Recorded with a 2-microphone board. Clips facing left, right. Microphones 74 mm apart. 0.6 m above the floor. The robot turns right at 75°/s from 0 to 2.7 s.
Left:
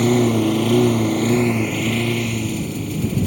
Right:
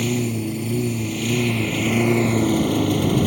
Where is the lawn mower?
45° left; by 3.3 s 115° right.